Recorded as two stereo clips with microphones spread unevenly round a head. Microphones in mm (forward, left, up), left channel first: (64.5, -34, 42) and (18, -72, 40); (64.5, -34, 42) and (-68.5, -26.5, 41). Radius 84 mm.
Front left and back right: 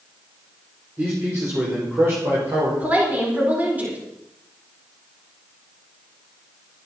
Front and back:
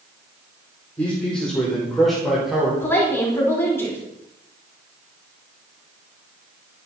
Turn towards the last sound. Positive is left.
turn(degrees=-75)